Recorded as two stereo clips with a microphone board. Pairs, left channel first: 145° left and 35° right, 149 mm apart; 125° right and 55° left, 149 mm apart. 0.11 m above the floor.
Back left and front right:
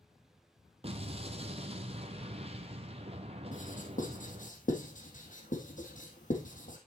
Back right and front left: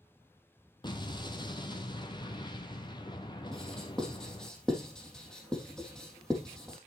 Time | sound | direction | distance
0.8 | an explosion | 70° right | 1.1 m
3.5 | writing | 150° left | 3 m